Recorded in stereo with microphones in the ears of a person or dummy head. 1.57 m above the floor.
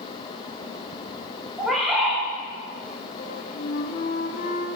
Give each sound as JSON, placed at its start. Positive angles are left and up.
{"t": 1.6, "sound": "a bird", "side_deg": 5, "distance_m": 1.4}
{"t": 3.2, "sound": "a flute", "side_deg": 45, "distance_m": 0.9}